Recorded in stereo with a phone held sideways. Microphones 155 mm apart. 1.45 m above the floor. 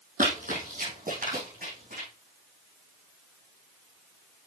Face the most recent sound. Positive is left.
turn(degrees=-75)  # may be behind; listen again after turning